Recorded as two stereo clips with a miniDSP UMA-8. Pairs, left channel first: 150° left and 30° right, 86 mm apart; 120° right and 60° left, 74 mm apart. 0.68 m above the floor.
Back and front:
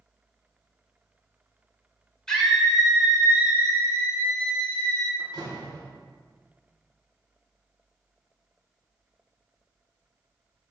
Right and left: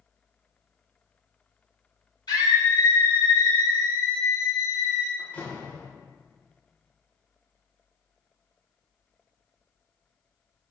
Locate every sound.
2.3 s a scream: 130° right, 2 m; by 5.1 s 70° right, 2.5 m
5.2 s a door slam: 55° right, 1.7 m